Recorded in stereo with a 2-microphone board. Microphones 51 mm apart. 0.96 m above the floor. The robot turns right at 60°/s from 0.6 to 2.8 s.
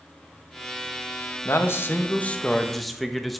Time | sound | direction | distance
1.4 | a man speaking | 100° left | 1.1 m